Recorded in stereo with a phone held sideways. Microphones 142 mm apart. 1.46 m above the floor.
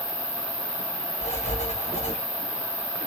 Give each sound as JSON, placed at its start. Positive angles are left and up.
{"t": 0.0, "sound": "an insect", "side_deg": 65, "distance_m": 3.0}
{"t": 1.2, "sound": "writing", "side_deg": 55, "distance_m": 6.5}